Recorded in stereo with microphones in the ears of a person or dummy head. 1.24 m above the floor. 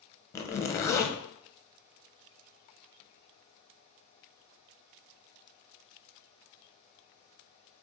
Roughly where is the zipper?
Left.